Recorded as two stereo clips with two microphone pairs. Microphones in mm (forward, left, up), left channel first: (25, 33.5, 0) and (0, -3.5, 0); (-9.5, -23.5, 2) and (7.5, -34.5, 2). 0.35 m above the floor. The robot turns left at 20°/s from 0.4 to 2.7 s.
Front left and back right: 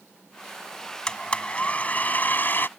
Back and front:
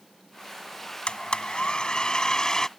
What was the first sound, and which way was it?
A blender, 125° left.